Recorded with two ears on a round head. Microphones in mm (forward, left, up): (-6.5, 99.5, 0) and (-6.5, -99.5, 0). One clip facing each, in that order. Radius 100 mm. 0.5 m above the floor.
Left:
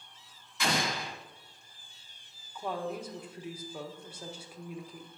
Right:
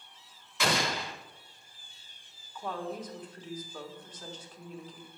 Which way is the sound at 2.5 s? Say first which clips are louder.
Left 1 dB; 10° left (ahead or behind).